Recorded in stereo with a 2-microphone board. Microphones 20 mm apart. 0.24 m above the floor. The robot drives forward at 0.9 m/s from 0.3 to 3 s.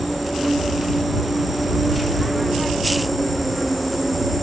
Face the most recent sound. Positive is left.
turn(degrees=0)  # may be behind; listen again after turning